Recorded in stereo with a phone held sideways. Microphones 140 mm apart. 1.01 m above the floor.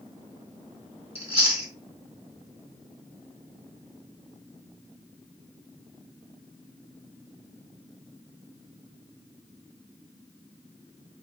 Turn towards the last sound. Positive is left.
turn(degrees=45)  # may be behind; listen again after turning